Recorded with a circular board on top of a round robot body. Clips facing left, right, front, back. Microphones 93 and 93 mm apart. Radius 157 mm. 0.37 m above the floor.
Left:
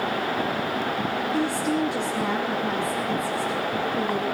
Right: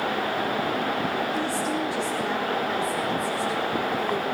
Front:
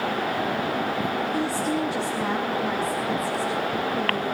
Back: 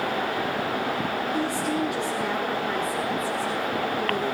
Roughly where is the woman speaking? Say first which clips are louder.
Left 2 dB, front 1 dB; ahead left.